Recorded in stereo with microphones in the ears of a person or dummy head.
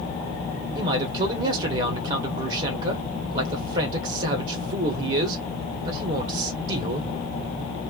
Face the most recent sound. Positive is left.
turn(degrees=-40)  # may be behind; listen again after turning